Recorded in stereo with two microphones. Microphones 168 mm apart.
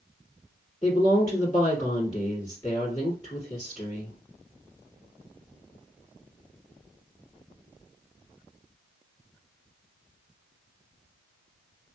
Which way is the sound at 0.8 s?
25° left (ahead or behind).